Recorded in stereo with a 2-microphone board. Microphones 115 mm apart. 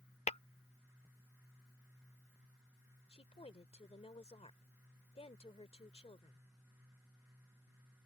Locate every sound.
0.3 s tapping: 75° left (ahead or behind)
3.1 s a woman speaking: 65° left (ahead or behind)